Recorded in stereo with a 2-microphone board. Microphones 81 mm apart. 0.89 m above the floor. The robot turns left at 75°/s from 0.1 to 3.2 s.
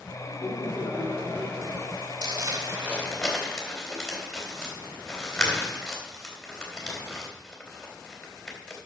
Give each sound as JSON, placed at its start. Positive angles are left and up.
{"t": 0.3, "sound": "laughter", "azimuth_deg": 90, "distance_m": 2.5}
{"t": 2.2, "sound": "crumpling", "side_deg": -70, "distance_m": 3.0}